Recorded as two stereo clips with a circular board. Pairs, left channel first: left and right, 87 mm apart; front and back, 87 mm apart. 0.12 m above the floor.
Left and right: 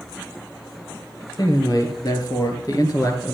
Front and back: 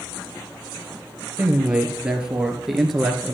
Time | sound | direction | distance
1.4 | a man speaking | 110° left | 2.5 m